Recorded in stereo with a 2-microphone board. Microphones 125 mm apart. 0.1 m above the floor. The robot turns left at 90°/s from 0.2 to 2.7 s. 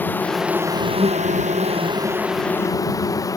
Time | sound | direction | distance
0.0 | an insect | 15° left | ?